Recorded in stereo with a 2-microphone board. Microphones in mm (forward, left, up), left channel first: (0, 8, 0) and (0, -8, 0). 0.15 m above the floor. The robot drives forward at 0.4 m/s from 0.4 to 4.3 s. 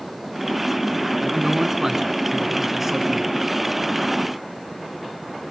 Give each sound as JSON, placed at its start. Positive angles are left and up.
{"t": 1.2, "sound": "a man speaking", "side_deg": -15, "distance_m": 2.0}